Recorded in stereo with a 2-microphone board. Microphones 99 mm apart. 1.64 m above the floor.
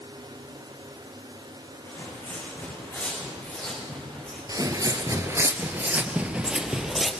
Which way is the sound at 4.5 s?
40° right (ahead or behind).